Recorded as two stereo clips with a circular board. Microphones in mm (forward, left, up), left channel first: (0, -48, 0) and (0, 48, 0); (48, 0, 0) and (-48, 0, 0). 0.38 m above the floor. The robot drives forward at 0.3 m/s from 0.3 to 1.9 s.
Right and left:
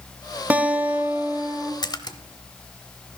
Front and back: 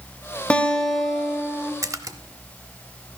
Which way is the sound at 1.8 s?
125° right.